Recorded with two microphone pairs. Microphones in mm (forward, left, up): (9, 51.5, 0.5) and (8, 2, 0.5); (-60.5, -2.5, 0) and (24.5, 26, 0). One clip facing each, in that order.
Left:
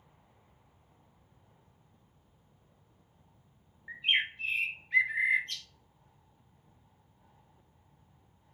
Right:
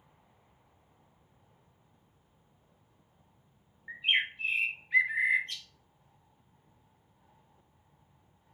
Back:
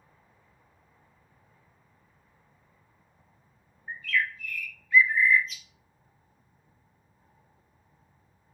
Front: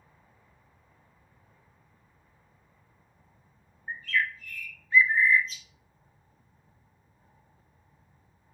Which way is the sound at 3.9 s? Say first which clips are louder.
Even, even; 5° right.